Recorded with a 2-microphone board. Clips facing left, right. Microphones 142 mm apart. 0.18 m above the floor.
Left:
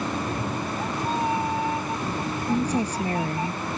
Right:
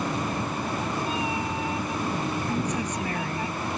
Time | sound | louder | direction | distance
0.1 | a cat meowing | left 1 dB | 65° left (ahead or behind) | ?
2.5 | a woman speaking | left 4 dB | 35° left (ahead or behind) | ?